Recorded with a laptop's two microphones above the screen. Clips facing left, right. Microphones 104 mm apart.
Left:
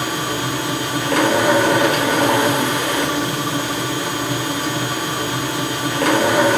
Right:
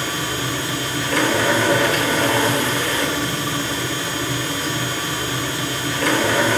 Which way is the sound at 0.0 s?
60° left (ahead or behind).